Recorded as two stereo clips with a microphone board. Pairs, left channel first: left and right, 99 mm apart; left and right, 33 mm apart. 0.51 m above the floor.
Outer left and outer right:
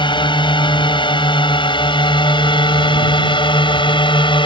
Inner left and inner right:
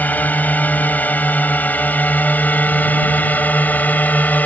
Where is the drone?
50° left (ahead or behind); by 4.5 s 55° left (ahead or behind).